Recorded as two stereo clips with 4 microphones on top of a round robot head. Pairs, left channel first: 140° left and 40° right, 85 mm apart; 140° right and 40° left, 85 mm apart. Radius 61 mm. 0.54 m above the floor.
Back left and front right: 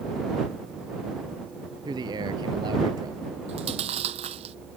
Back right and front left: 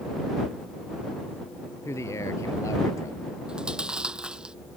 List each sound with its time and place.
1.9 s a man speaking: 80° right; by 3.4 s 85° right
3.5 s chewing: 40° right